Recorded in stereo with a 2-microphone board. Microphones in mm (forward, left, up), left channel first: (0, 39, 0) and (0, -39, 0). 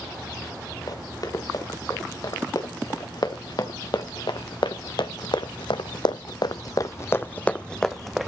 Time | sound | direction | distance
0.9 | running footsteps | 55° left (ahead or behind) | 3.5 m